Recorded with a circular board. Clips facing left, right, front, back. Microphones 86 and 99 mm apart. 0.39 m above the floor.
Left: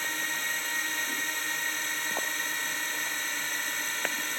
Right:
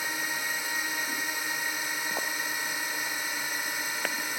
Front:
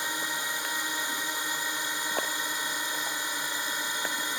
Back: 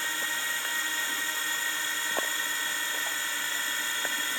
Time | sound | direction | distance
0.0 | a drone | 30° right | ?